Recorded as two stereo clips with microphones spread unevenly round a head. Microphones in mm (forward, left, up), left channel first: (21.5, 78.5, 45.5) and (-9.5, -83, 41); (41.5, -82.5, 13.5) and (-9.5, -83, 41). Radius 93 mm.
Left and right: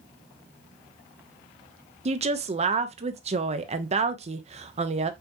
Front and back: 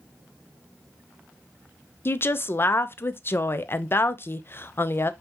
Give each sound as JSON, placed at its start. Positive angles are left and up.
{"t": 2.0, "sound": "a woman speaking", "azimuth_deg": -50, "distance_m": 0.6}